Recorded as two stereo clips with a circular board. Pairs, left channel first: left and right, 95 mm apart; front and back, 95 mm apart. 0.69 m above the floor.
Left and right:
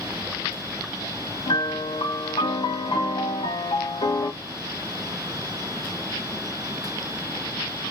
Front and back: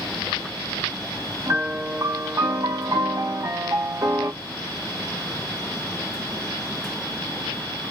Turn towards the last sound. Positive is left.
turn(degrees=120)